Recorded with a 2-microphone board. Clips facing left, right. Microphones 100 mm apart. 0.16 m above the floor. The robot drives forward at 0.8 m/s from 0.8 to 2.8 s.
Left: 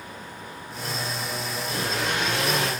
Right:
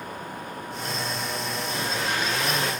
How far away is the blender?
About 3.5 m.